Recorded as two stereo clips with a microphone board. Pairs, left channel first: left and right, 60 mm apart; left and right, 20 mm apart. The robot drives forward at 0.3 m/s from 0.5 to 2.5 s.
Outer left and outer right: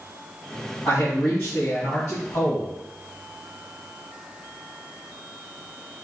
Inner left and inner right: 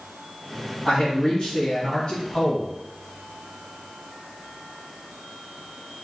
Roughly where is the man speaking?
Left.